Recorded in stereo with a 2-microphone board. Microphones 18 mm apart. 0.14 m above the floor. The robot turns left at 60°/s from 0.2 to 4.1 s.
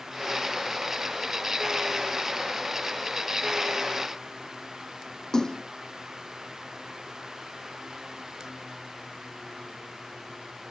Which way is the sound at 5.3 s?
40° left (ahead or behind).